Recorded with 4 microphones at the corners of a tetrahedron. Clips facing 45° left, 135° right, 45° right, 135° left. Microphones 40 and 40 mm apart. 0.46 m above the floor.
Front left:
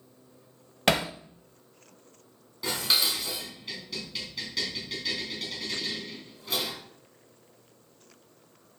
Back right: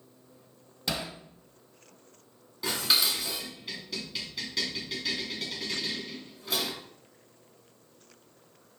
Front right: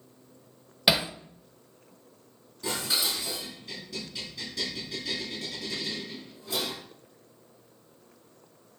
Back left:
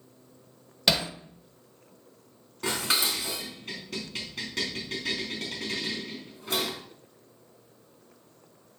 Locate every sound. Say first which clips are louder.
0.9 s hammering: front left 9 dB, front right 1 dB; 30° left, 0.6 m
2.6 s dishes clattering: even, back left 2 dB; 135° left, 3 m